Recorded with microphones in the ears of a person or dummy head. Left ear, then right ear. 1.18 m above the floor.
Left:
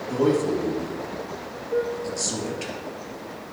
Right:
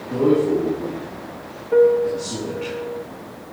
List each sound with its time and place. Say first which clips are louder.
0.1 s a man speaking: right 4 dB; 80° left, 3 m
1.7 s a piano: right 11 dB; 40° right (ahead or behind), 0.6 m